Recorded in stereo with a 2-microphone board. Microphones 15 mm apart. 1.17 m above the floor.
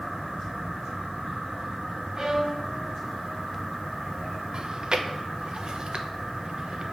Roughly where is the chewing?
Right.